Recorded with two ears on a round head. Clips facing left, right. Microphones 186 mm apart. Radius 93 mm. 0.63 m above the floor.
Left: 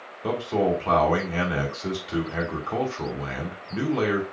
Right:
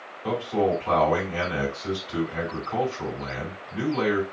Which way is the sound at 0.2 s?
60° left (ahead or behind).